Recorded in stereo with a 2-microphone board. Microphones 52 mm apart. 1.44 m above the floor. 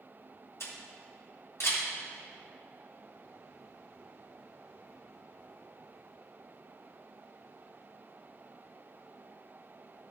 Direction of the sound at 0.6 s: 65° left (ahead or behind).